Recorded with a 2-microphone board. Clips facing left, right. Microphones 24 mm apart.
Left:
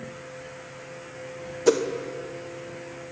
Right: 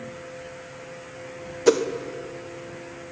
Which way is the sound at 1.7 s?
15° right (ahead or behind).